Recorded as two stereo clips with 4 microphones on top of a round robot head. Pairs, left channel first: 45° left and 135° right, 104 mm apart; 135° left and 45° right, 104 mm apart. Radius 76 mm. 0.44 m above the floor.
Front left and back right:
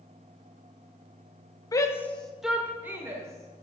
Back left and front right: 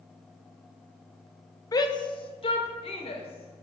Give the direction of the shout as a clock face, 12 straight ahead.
9 o'clock.